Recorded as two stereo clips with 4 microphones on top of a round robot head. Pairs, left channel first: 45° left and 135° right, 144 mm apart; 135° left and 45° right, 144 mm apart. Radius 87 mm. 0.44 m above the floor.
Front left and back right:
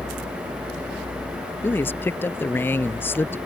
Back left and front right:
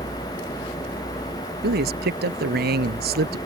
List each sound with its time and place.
1.6 s a man speaking: 30° right